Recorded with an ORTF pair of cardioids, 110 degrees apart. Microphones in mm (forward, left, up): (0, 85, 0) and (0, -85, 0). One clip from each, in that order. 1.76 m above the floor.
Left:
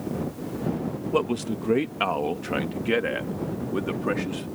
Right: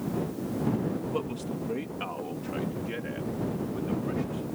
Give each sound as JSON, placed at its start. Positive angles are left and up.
{"t": 1.1, "sound": "a man speaking", "azimuth_deg": 50}